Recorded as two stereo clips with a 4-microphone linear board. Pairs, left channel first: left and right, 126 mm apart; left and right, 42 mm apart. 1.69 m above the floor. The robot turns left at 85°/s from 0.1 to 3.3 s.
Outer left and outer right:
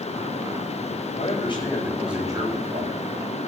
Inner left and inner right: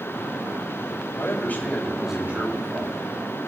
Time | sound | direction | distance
1.2 | a man speaking | 70° left | 7 m